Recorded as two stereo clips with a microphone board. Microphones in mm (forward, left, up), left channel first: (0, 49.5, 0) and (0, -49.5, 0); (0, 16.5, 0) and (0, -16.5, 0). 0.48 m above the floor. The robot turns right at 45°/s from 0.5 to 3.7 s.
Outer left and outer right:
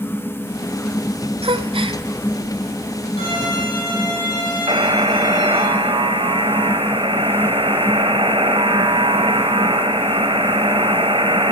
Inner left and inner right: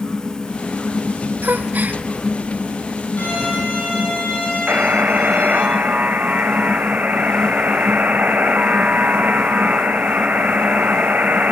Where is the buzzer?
65° right (ahead or behind), 1.9 m.